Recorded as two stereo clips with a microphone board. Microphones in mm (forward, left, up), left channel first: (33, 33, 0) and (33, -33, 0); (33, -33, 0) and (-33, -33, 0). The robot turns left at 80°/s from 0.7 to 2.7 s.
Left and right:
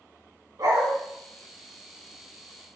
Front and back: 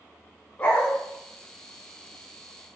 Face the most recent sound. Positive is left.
turn(degrees=130)